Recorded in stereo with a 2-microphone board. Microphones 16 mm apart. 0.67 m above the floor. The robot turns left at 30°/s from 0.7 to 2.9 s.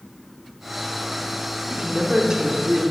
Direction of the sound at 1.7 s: 80° right.